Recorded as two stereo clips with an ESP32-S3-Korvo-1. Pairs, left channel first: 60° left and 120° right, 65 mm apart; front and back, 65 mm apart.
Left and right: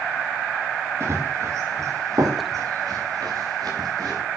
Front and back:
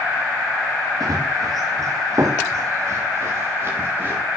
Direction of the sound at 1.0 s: 165° right.